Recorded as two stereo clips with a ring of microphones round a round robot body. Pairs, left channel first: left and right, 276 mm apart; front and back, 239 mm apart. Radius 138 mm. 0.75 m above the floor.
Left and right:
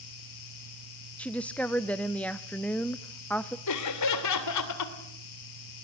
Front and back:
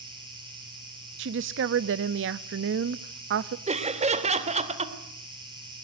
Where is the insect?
110° left, 6.5 m.